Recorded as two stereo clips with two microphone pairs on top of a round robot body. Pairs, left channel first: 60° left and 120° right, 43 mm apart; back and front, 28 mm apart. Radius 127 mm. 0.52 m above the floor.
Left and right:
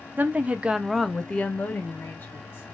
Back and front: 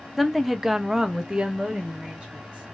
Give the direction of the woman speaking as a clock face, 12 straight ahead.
3 o'clock.